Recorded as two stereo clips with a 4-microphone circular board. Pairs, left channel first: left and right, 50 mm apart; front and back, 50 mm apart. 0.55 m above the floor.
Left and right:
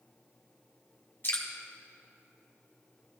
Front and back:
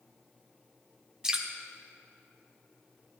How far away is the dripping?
About 1.3 m.